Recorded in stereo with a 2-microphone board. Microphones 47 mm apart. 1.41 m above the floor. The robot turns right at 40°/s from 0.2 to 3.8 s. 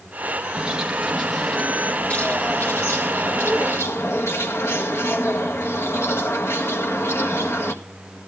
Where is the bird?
25° right, 1.5 m; by 7.7 s 105° left, 1.5 m.